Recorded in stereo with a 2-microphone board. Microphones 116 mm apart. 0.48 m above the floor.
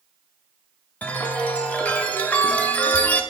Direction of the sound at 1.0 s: 10° left (ahead or behind).